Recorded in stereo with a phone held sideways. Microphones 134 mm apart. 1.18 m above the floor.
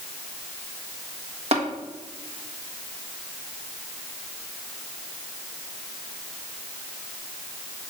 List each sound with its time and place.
1.5 s tapping: 50° right (ahead or behind), 1.4 m